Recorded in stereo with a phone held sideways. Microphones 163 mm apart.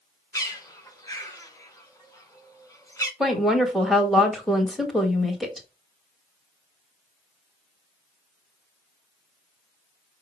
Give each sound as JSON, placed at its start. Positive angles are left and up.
{"t": 0.3, "sound": "a bird", "side_deg": 20, "distance_m": 1.4}
{"t": 3.2, "sound": "a woman speaking", "side_deg": 0, "distance_m": 1.3}